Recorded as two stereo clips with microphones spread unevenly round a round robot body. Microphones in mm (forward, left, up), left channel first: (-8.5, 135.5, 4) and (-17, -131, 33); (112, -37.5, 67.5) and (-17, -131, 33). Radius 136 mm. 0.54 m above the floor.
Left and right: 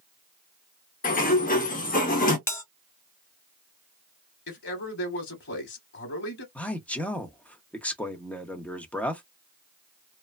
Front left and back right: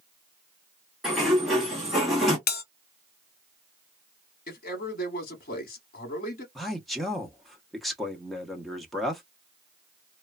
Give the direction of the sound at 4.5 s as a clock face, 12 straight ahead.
10 o'clock.